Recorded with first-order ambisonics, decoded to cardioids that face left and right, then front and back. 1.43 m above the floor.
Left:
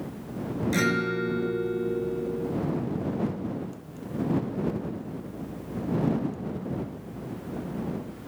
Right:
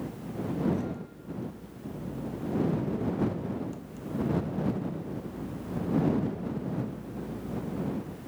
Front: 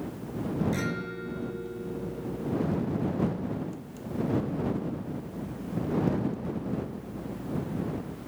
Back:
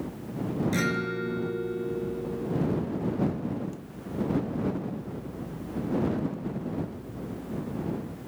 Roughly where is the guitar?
Left.